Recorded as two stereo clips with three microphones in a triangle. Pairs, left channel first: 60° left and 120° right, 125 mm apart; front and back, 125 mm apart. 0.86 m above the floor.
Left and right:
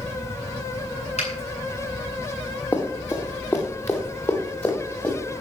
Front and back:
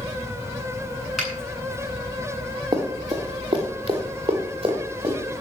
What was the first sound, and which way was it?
A finger snap, 95° left.